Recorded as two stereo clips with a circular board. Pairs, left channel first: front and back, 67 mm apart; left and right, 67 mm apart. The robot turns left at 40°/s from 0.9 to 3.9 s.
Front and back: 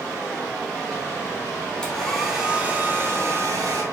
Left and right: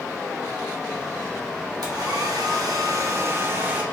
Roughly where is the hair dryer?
Right.